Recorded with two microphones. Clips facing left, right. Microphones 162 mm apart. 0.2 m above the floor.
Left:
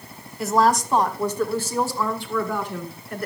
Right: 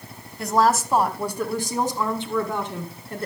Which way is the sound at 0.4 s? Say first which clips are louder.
Left 1 dB; 5° left (ahead or behind).